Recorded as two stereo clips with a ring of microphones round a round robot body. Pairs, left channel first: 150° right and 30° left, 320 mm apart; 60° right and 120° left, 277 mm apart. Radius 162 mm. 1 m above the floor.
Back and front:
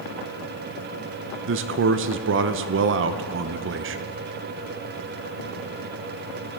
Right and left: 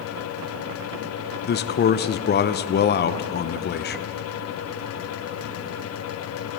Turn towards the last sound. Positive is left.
turn(degrees=-15)